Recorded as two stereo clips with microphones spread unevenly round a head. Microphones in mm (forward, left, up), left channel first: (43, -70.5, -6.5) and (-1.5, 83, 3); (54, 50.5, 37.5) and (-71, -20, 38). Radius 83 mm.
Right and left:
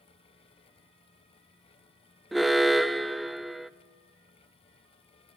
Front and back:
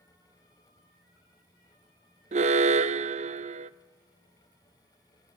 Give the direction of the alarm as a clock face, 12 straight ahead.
6 o'clock.